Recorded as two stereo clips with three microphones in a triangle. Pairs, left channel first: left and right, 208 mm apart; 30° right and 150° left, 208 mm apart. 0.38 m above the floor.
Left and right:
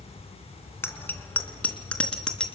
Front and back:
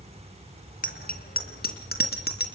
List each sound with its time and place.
0.8 s a bicycle bell: 10° left, 2.5 m; by 2.5 s 5° left, 3.5 m